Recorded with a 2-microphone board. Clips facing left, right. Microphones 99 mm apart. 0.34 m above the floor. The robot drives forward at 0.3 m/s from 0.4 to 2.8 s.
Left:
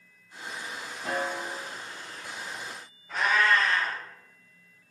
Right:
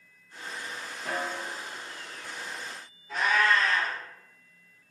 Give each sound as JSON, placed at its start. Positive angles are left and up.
{"t": 1.1, "sound": "a snare drum", "side_deg": 35, "distance_m": 1.9}
{"t": 3.1, "sound": "a cat meowing", "side_deg": 60, "distance_m": 1.5}